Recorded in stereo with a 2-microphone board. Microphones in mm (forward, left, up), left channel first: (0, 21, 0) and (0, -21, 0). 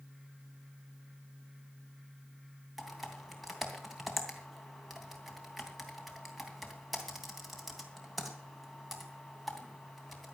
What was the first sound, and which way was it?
Typing on a keyboard, centre (ahead or behind).